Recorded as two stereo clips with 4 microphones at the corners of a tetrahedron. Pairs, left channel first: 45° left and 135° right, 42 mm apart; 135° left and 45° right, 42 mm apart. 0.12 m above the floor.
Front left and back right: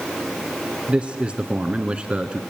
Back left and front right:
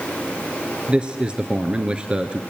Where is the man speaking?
90° right, 1.4 m.